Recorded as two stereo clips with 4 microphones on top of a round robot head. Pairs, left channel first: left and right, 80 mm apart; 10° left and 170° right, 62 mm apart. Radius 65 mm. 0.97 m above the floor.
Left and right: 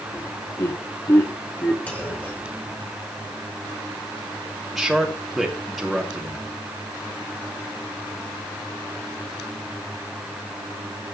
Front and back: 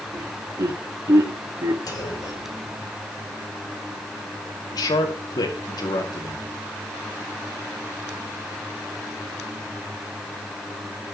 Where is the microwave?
I don't hear a microwave.